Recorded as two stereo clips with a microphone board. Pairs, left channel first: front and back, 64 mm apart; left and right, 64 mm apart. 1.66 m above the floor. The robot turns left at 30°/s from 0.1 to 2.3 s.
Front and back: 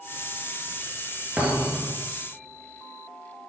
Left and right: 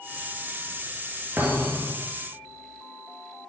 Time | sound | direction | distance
1.4 | a thud | 130° right | 2 m